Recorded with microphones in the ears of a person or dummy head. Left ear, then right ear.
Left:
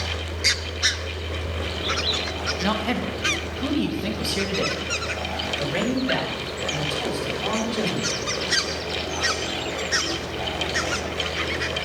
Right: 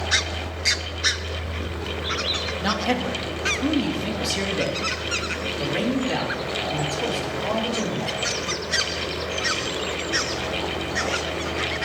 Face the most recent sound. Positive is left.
turn(degrees=35)  # may be behind; listen again after turning